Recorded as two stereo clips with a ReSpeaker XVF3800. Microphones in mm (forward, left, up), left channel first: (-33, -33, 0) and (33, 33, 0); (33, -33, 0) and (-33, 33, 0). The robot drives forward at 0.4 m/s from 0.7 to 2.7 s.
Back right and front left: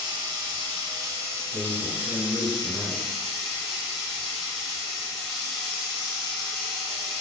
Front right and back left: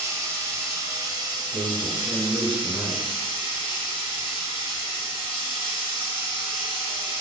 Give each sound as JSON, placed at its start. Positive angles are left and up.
{"t": 0.0, "sound": "running water", "azimuth_deg": 80, "distance_m": 0.7}
{"t": 1.5, "sound": "a man speaking", "azimuth_deg": -170, "distance_m": 1.5}